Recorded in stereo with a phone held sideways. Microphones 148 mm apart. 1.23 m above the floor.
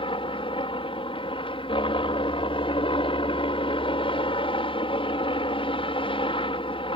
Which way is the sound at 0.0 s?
35° left (ahead or behind).